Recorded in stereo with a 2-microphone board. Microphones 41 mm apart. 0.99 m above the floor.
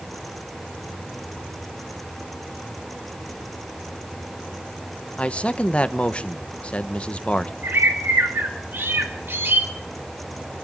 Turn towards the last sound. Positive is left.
turn(degrees=-70)  # may be behind; listen again after turning